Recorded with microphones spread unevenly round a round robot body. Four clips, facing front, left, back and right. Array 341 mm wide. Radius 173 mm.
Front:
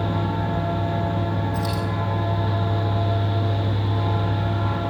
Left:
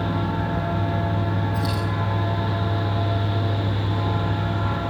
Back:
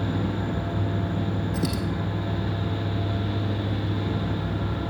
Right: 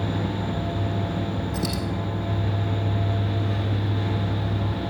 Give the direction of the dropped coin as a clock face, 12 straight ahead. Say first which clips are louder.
Left 2 dB, front 2 dB; 5 o'clock.